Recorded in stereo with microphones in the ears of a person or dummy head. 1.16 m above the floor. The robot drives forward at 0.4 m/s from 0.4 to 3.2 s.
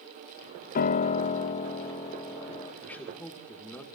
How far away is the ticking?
No ticking in this recording.